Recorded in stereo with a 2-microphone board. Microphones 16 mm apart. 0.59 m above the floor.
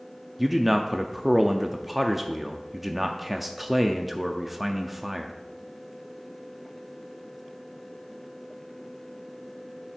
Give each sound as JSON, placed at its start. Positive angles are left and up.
{"t": 0.4, "sound": "a man speaking", "side_deg": -10, "distance_m": 0.5}